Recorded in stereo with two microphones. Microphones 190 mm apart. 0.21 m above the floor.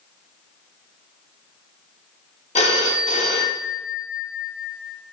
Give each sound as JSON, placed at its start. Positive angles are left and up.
{"t": 2.5, "sound": "a phone ringing", "side_deg": 35, "distance_m": 0.7}